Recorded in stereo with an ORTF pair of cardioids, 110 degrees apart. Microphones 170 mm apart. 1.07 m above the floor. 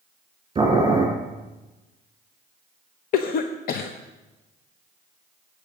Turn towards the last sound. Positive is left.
turn(degrees=65)